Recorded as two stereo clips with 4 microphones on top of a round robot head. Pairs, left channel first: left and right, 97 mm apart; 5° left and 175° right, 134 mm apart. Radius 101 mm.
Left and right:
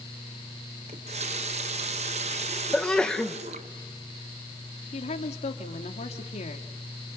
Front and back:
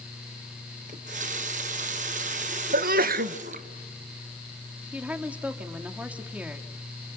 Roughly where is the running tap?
Behind right.